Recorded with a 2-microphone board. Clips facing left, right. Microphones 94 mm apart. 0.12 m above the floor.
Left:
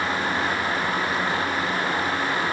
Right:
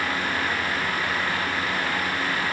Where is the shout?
No shout in this recording.